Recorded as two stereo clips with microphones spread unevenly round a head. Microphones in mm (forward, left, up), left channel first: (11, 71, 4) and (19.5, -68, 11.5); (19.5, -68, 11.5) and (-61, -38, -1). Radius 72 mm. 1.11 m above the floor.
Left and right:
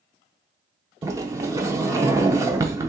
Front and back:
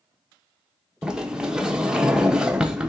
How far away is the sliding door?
About 0.7 m.